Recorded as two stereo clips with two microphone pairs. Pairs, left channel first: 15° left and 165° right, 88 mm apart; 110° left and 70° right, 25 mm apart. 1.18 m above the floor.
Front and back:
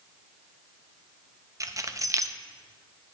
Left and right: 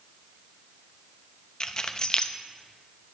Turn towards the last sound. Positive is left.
turn(degrees=160)